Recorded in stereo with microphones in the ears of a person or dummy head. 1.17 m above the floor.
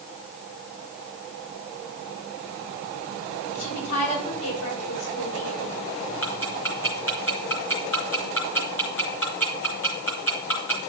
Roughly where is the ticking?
Centre.